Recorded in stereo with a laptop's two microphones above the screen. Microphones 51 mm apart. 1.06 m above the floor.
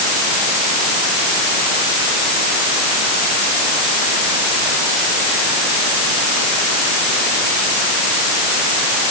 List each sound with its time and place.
Only background noise.